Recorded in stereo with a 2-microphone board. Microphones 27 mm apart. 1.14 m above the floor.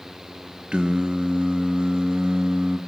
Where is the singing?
45° right (ahead or behind), 1.4 m.